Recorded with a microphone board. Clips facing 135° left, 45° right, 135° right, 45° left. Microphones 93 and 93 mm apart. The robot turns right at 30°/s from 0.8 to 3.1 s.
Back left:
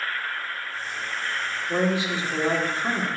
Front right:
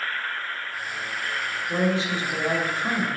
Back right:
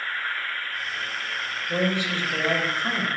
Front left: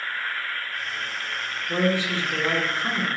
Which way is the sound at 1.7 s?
65° left.